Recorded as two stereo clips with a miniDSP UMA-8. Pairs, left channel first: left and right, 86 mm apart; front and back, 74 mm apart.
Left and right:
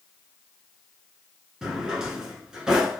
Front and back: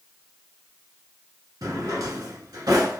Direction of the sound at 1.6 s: 170° right.